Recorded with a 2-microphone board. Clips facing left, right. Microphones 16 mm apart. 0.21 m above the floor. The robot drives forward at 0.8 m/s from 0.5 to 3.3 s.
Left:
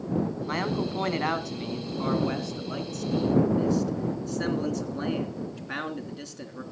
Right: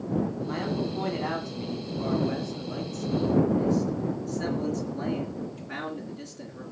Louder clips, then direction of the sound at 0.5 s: Left 1 dB; 45° left (ahead or behind).